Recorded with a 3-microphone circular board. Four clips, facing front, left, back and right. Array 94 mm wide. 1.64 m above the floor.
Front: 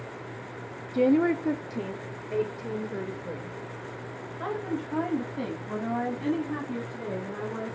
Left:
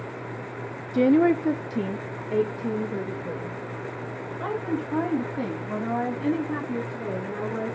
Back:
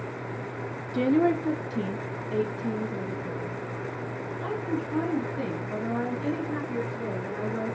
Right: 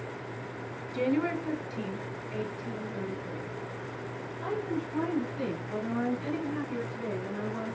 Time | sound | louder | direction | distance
0.9 | a woman speaking | left 10 dB, even | 105° left | 1.2 m